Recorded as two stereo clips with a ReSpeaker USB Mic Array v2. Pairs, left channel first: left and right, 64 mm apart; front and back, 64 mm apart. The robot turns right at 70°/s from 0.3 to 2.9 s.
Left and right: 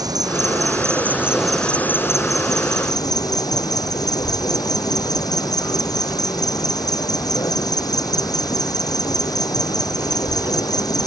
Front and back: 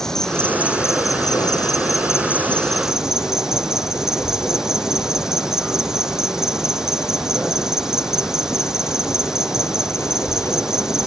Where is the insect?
85° right; by 11.1 s 100° left.